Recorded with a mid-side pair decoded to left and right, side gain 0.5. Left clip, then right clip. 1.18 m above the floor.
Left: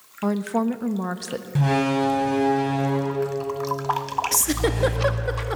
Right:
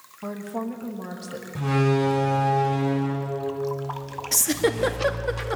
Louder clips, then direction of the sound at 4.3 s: Right 5 dB; 5° right.